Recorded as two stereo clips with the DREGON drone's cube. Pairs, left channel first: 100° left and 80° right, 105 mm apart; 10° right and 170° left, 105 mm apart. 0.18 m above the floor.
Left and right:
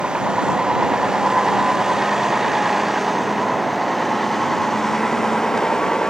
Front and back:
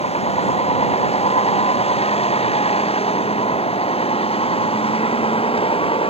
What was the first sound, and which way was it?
A vehicle, 5° left.